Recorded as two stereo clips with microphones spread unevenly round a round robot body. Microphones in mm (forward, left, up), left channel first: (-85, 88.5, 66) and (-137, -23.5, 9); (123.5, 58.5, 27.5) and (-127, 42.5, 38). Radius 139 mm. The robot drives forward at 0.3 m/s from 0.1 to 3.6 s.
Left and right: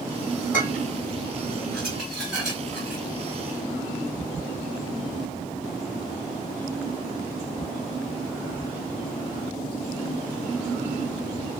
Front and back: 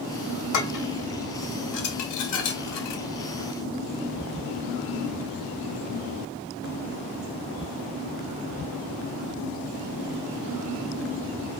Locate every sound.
0.5 s dishes clattering: 20° right, 1.9 m; by 3.0 s 30° right, 1.2 m